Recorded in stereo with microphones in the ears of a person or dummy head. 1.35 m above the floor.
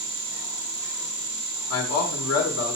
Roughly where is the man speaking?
Left.